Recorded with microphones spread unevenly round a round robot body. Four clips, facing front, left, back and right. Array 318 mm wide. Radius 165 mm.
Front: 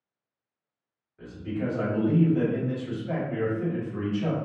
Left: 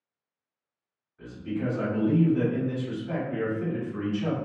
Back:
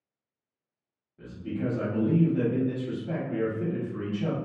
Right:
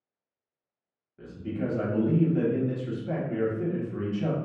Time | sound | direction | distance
1.2 | a man speaking | 115° right | 1.4 m